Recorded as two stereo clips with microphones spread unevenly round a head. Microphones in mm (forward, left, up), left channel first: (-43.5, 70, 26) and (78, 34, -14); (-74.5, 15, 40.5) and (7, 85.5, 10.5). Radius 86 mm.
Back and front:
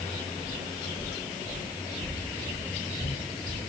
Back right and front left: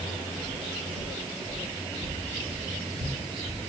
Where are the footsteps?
95° left, 6 m; by 3.6 s 105° left, 4.5 m.